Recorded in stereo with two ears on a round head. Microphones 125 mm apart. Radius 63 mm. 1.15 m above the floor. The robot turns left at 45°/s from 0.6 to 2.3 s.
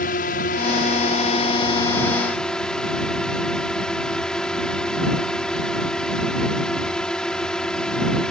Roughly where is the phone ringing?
No phone ringing in this recording.